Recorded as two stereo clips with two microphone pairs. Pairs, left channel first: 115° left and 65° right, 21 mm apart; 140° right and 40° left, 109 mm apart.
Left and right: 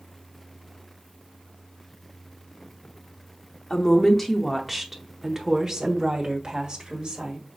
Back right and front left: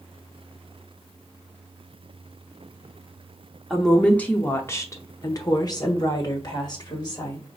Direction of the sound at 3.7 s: 140° left.